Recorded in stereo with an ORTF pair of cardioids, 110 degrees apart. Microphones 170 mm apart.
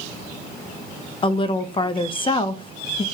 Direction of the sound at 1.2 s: 30° left.